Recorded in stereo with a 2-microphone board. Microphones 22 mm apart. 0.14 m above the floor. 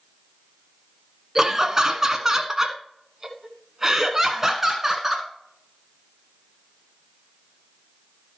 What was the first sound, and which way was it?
Laughter, 20° right (ahead or behind).